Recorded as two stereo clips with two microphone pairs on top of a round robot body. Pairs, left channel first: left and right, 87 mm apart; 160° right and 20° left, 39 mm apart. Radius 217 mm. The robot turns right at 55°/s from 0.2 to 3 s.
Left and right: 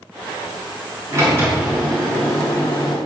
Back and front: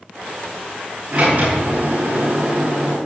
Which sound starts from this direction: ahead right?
A sliding door, at 1.1 s.